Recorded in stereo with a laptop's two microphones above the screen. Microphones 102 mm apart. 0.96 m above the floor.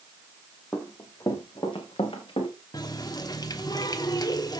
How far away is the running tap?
About 1.2 m.